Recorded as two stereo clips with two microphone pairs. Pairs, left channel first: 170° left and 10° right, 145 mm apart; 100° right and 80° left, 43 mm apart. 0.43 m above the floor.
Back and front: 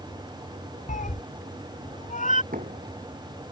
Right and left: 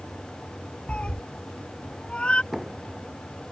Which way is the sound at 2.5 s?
Straight ahead.